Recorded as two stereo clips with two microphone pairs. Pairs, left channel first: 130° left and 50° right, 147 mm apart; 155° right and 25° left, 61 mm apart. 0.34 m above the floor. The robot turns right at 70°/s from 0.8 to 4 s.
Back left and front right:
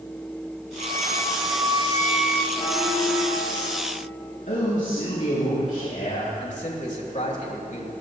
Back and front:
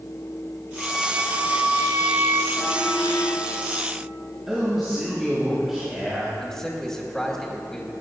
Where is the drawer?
No drawer in this recording.